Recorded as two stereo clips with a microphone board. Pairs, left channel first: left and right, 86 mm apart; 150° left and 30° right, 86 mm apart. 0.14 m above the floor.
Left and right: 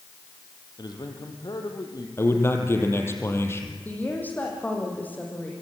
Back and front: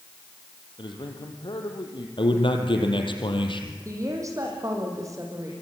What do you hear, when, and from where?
0.8 s a man speaking: 125° left, 4 m
2.2 s a man speaking: 150° left, 4 m
3.9 s a woman speaking: 20° left, 6.5 m